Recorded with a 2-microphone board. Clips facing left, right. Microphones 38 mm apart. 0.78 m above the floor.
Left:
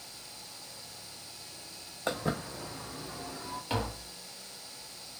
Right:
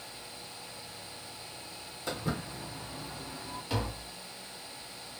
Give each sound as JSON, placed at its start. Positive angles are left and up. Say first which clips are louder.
{"t": 2.1, "sound": "footsteps", "louder": "left 3 dB", "side_deg": 65, "distance_m": 1.9}
{"t": 3.7, "sound": "tapping", "louder": "left 1 dB", "side_deg": 25, "distance_m": 1.1}